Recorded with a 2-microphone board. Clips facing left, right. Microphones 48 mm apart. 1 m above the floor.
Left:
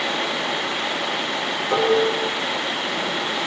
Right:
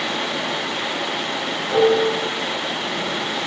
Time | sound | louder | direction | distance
1.7 | dishes clattering | right 3 dB | 55° left (ahead or behind) | 6.5 m